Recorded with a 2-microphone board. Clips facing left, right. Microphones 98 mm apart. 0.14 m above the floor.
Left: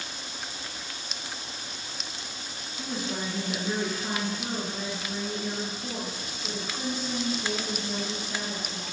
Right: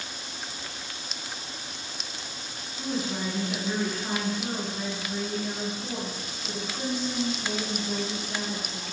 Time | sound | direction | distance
2.8 | a woman speaking | 5° left (ahead or behind) | 1.2 m